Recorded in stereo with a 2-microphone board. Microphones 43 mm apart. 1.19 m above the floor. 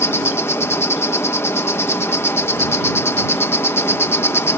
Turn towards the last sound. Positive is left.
turn(degrees=75)  # may be behind; listen again after turning